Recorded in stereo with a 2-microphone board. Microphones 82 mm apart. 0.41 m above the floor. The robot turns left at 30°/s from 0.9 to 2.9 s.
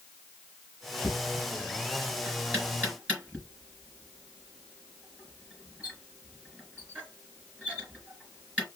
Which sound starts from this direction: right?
Knocking, at 1.0 s.